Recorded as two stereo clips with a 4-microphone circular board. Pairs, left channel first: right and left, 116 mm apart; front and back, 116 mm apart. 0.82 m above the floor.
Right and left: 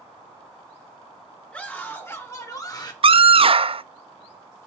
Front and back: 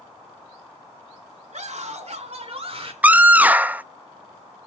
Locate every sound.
1.5 s a scream: 170° right, 3 m; by 2.9 s 145° right, 3 m
3.0 s a scream: 105° left, 0.6 m